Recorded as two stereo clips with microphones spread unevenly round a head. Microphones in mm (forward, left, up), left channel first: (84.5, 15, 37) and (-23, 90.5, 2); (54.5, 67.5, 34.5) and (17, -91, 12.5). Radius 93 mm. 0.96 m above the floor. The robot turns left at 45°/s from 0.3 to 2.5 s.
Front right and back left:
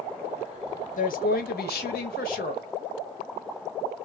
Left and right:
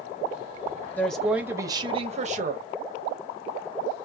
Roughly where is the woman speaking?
Ahead.